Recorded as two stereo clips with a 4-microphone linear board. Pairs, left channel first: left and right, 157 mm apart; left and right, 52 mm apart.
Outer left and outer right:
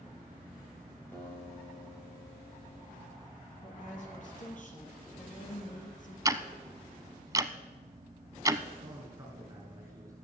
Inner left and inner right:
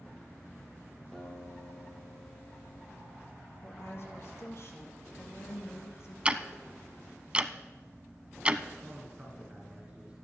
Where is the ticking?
25° right (ahead or behind), 0.6 m.